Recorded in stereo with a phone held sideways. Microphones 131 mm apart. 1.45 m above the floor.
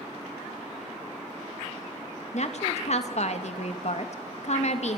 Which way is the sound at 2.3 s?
60° left (ahead or behind).